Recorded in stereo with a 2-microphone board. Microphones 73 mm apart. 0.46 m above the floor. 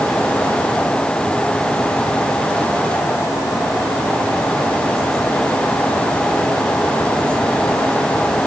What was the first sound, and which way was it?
Only background noise.